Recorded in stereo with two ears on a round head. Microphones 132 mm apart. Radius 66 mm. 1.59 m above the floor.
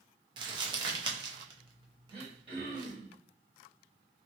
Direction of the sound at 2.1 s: 40° right (ahead or behind).